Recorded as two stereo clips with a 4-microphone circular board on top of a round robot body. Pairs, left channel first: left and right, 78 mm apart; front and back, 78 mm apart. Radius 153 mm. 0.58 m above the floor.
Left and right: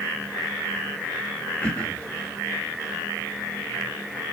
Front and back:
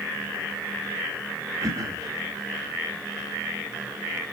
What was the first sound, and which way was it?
Throat clearing, 160° left.